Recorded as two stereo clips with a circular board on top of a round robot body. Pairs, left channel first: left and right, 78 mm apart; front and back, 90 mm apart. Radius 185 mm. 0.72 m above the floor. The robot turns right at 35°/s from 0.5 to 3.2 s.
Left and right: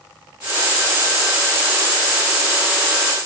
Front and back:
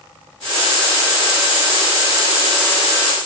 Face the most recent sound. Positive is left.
No sound to turn to.